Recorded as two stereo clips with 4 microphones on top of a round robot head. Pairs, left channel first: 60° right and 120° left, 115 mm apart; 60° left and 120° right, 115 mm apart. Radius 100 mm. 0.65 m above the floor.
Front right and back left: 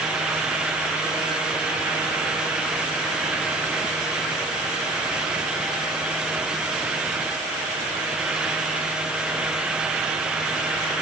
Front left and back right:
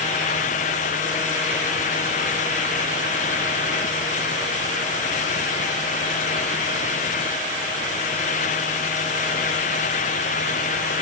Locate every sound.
Only background noise.